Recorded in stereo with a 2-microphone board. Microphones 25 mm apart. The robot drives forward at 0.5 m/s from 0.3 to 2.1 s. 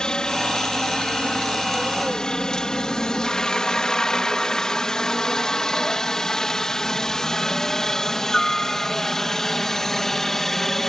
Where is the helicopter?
25° left (ahead or behind); by 10.9 s 10° left (ahead or behind).